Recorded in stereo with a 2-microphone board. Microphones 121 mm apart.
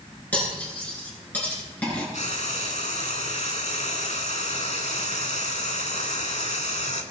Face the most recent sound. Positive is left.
turn(degrees=80)